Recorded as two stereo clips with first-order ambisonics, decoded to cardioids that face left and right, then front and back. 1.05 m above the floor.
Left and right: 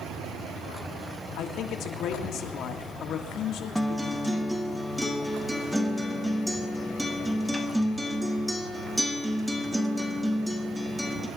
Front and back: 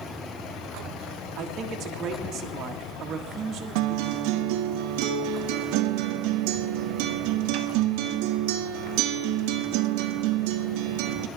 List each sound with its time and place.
1.4 s a man speaking: 130° left, 1.9 m
3.8 s a guitar: 175° right, 1.2 m